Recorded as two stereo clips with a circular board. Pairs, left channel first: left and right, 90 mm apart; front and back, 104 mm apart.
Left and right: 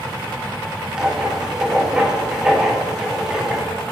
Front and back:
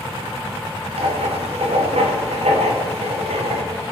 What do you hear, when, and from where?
1.0 s writing: 170° right, 1.0 m